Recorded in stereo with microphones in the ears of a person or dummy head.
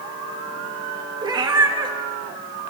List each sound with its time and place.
1.2 s a cat meowing: 25° right (ahead or behind), 0.8 m